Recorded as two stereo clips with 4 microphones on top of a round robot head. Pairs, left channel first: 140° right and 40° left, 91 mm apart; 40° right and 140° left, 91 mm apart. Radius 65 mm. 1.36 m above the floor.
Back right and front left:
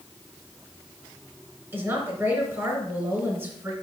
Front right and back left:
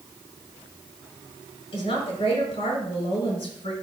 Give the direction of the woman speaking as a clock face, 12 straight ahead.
1 o'clock.